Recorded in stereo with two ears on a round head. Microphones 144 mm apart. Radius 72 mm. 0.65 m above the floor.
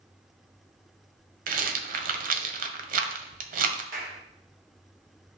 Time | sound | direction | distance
1.5 | a rattle | 55° right (ahead or behind) | 1.4 m
3.9 | a clap | 60° right (ahead or behind) | 3 m